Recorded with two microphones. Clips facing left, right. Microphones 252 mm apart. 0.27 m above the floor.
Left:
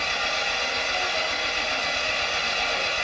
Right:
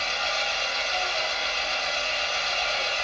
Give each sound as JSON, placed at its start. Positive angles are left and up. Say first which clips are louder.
{"t": 0.0, "sound": "an engine running", "louder": "left 1 dB", "side_deg": 80, "distance_m": 0.9}